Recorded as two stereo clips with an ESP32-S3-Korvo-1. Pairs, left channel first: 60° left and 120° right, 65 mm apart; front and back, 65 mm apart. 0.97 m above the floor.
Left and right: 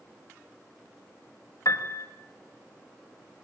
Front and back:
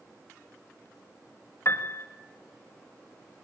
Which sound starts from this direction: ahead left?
A piano, at 1.6 s.